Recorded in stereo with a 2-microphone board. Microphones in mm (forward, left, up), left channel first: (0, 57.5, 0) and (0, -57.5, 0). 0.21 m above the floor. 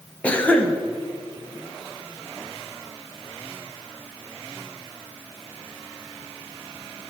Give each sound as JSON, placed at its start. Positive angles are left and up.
{"t": 0.2, "sound": "a cough", "side_deg": 10, "distance_m": 1.0}